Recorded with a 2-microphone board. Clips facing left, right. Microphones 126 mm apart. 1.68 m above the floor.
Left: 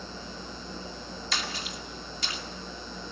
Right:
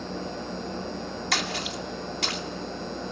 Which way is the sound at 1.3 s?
65° right (ahead or behind).